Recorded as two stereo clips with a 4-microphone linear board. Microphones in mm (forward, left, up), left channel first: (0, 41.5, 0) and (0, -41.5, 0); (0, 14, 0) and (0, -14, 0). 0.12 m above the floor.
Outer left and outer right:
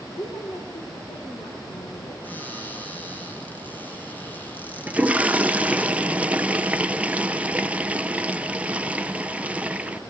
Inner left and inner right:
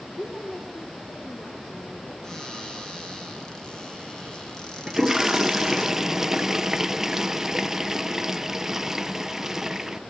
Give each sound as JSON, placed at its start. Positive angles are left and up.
{"t": 0.1, "sound": "a woman speaking", "side_deg": 65, "distance_m": 7.5}
{"t": 2.2, "sound": "a cupboard door", "side_deg": 20, "distance_m": 4.5}
{"t": 4.9, "sound": "a toilet flushing", "side_deg": -15, "distance_m": 0.6}